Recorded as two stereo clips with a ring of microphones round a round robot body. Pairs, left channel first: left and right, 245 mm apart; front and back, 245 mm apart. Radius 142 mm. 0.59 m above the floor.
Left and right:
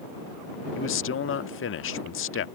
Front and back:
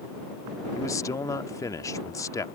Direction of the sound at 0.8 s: 75° left.